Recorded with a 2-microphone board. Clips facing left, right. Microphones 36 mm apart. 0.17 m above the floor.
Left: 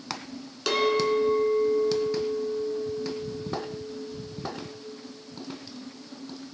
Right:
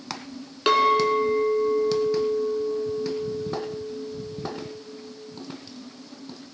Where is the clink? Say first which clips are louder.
Right 5 dB; 30° right (ahead or behind), 1.4 m.